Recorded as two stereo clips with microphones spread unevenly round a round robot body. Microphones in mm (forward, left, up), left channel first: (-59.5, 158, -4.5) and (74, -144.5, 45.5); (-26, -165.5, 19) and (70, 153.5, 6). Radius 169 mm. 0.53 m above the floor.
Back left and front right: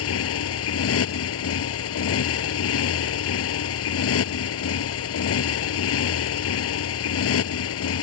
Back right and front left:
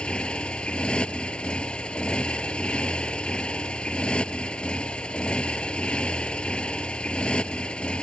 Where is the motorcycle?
165° left.